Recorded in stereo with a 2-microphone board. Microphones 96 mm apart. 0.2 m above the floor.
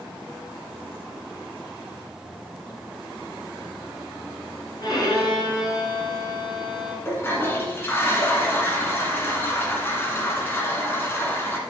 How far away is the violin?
About 2 m.